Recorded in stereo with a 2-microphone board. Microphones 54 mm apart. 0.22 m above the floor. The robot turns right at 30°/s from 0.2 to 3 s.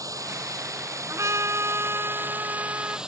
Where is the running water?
100° right; by 3.1 s 15° right.